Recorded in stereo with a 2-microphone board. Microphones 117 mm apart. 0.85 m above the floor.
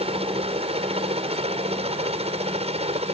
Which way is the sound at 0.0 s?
60° right (ahead or behind).